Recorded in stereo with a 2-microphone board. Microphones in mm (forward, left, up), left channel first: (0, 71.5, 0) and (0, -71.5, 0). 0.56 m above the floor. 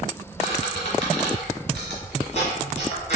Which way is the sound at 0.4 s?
50° left (ahead or behind).